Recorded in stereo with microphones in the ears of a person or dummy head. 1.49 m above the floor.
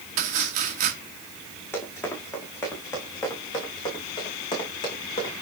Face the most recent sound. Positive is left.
turn(degrees=30)  # may be behind; listen again after turning